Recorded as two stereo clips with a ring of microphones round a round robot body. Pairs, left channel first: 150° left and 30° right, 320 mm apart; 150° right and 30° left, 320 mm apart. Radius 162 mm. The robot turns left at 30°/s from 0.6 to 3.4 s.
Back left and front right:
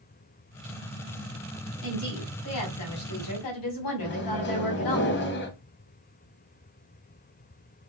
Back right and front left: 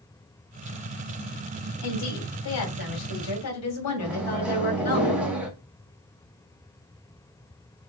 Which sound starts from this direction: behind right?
A woman speaking, at 1.8 s.